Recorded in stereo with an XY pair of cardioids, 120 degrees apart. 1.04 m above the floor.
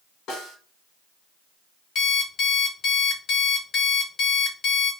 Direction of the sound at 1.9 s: 55° left.